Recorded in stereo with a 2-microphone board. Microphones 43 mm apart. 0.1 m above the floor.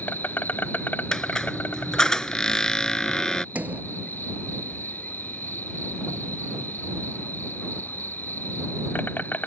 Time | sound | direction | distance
0.0 | an insect | 45° left (ahead or behind) | ?
1.1 | a squeak | 15° left (ahead or behind) | ?
3.5 | a sliding door | 45° right (ahead or behind) | ?